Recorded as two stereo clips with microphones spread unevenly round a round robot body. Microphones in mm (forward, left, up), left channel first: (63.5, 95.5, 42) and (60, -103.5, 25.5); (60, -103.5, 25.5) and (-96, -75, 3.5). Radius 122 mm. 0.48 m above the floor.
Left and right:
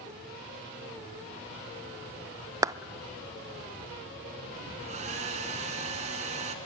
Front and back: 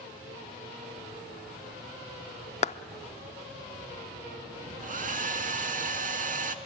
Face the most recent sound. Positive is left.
turn(degrees=-155)